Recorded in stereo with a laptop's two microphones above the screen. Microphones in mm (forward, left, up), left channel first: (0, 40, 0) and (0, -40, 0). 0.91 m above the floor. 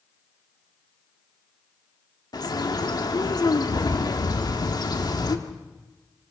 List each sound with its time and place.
2.3 s a bird: 55° left (ahead or behind), 1.4 m